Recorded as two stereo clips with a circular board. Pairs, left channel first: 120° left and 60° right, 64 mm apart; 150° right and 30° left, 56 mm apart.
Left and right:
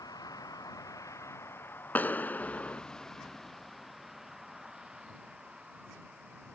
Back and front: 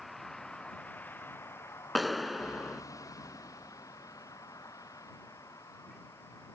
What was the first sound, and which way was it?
A vehicle, 120° left.